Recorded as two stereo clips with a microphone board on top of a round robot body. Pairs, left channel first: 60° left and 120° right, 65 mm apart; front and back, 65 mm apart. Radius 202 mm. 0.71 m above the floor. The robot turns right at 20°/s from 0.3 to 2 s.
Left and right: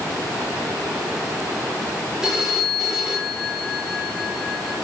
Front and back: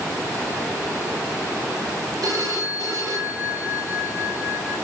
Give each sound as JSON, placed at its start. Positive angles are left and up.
{"t": 2.2, "sound": "a phone ringing", "azimuth_deg": 155, "distance_m": 2.5}